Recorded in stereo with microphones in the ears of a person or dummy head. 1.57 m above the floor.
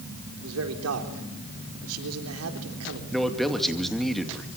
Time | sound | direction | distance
0.4 | a man speaking | 85° right | 4 m
3.1 | a man speaking | centre (ahead or behind) | 2.5 m